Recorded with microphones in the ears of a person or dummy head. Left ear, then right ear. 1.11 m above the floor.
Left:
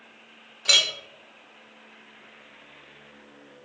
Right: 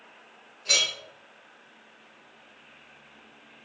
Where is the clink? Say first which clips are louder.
Left 4 dB; 45° left (ahead or behind), 0.7 m.